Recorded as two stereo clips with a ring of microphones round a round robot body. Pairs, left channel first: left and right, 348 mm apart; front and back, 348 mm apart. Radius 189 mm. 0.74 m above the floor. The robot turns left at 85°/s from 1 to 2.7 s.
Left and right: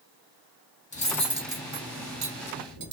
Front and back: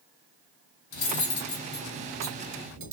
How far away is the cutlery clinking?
About 1.1 m.